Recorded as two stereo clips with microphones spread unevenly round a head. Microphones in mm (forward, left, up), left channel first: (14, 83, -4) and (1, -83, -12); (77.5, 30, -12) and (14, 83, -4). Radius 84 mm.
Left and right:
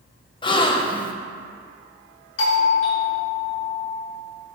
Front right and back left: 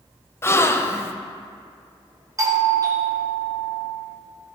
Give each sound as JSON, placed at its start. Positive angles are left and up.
{"t": 0.4, "sound": "a gasp", "azimuth_deg": 20, "distance_m": 0.8}
{"t": 2.4, "sound": "a doorbell", "azimuth_deg": 90, "distance_m": 1.9}